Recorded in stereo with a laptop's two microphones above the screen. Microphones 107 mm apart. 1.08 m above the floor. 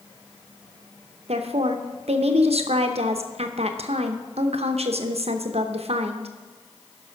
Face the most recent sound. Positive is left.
turn(degrees=-75)  # may be behind; listen again after turning